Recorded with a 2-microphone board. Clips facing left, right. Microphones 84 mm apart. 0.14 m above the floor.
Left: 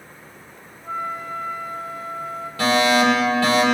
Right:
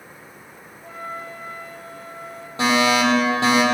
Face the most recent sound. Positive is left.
turn(degrees=-25)  # may be behind; listen again after turning